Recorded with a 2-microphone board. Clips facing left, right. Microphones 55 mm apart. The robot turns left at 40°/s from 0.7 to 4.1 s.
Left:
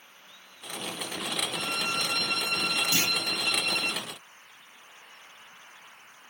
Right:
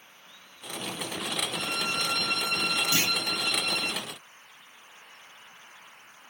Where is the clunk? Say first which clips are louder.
Right 1 dB; 25° right (ahead or behind), 1.0 m; by 3.1 s 20° right (ahead or behind), 1.0 m.